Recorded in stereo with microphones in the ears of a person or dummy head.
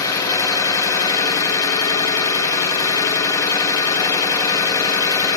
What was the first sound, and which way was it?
An engine running, 15° left (ahead or behind).